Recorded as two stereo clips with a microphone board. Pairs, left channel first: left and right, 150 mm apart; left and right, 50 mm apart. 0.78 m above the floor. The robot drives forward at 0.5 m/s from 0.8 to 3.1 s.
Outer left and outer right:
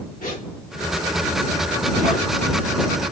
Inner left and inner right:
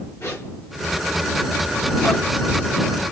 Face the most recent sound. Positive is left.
turn(degrees=50)  # may be behind; listen again after turning